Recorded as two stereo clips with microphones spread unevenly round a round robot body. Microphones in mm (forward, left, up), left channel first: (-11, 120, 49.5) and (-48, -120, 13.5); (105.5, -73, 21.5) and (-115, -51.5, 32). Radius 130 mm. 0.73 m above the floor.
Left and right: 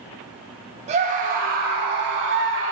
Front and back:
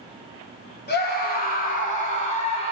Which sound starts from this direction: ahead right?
A scream, at 0.9 s.